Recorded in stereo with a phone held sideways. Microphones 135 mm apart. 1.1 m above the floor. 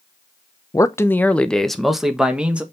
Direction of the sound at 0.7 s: 25° left (ahead or behind).